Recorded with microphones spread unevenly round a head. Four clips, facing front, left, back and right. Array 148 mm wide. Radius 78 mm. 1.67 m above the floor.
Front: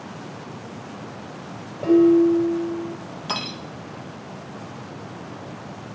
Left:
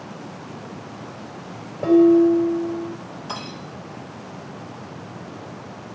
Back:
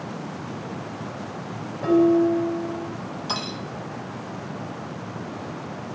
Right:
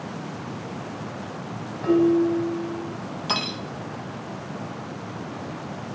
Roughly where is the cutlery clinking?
Right.